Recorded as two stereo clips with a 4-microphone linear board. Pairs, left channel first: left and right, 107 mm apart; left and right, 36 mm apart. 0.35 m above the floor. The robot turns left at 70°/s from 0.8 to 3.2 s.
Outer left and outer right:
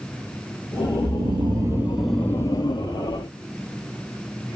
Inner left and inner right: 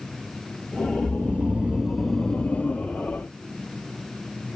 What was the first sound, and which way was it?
Snoring, 105° right.